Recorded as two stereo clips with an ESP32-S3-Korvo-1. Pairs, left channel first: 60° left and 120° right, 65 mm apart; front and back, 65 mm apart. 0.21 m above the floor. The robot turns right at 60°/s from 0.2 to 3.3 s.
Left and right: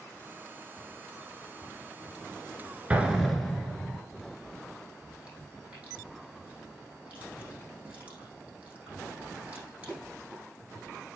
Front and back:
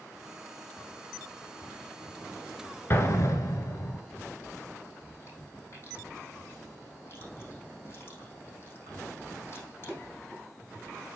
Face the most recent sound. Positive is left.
turn(degrees=-50)